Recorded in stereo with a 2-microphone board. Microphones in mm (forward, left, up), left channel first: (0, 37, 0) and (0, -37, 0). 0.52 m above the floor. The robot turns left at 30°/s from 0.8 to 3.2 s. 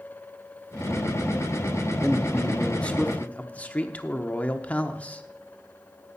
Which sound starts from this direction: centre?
A man speaking, at 2.0 s.